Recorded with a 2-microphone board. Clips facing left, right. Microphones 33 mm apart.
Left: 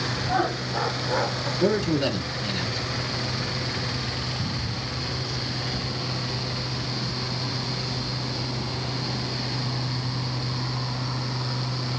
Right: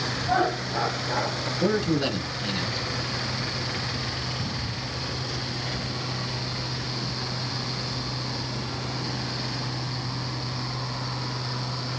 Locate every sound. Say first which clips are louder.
0.3 s laughter: right 2 dB; 20° right (ahead or behind), 1.7 m; by 1.5 s 15° left (ahead or behind), 1.3 m
1.6 s a man speaking: left 1 dB; 5° right (ahead or behind), 1.2 m